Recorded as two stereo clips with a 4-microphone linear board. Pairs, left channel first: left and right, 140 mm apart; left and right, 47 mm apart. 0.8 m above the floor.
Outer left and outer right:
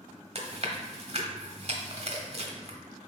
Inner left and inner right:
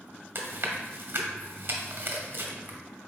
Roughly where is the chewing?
Right.